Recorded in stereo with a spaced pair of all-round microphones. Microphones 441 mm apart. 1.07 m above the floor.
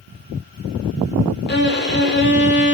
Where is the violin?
25° left (ahead or behind), 0.5 m.